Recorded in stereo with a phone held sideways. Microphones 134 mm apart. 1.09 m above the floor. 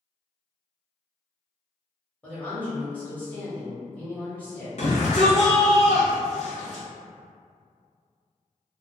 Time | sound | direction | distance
2.2 | a woman speaking | 10° left (ahead or behind) | 1.4 m
4.8 | a shout | 55° left (ahead or behind) | 0.6 m